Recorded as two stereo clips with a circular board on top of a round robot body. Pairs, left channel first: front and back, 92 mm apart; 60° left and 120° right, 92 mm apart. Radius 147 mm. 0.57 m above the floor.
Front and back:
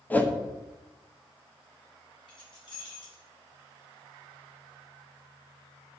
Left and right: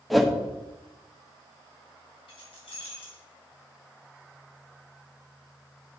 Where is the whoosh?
30° right, 1.2 m.